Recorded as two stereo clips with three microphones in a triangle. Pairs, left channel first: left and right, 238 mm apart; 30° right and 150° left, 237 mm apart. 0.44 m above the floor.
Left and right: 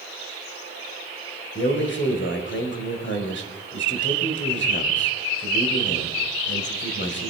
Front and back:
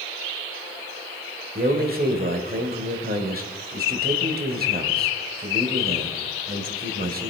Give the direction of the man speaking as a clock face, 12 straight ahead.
8 o'clock.